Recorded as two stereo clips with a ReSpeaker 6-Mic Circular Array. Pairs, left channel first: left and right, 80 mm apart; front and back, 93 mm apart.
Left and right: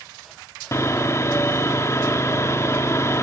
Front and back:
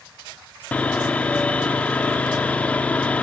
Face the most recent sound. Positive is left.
turn(degrees=65)